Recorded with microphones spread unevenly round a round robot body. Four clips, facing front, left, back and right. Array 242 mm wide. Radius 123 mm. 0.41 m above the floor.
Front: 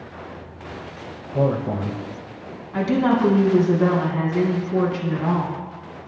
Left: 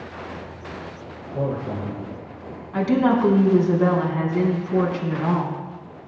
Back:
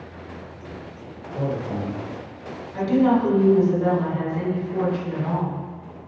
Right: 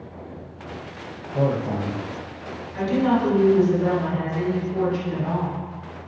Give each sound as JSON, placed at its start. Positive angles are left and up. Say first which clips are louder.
{"t": 1.3, "sound": "a man speaking", "louder": "right 3 dB, front 5 dB", "azimuth_deg": -15, "distance_m": 2.5}
{"t": 2.7, "sound": "a woman speaking", "louder": "left 2 dB, back 1 dB", "azimuth_deg": 50, "distance_m": 4.0}